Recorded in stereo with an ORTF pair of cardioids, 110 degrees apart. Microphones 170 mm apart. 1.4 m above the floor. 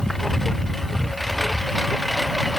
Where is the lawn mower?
Straight ahead.